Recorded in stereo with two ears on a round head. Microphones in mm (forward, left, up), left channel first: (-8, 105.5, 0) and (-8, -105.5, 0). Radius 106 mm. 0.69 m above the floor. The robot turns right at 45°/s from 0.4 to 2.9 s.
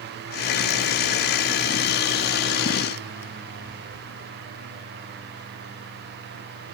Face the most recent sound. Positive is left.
No sound to turn to.